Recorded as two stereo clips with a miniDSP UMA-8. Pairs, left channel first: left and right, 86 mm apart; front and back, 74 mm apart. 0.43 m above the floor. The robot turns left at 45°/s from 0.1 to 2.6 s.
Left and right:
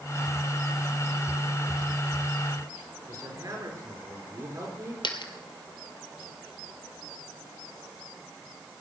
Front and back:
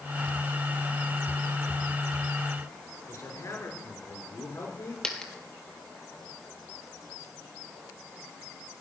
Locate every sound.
3.1 s a man speaking: 45° right, 5.5 m
5.0 s a dropped coin: 80° left, 1.4 m